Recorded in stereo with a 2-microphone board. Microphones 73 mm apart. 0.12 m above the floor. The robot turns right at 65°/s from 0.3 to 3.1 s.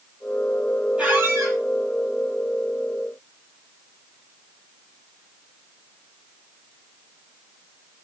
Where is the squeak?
160° right, 1.2 m; by 1.6 s 120° right, 1.2 m.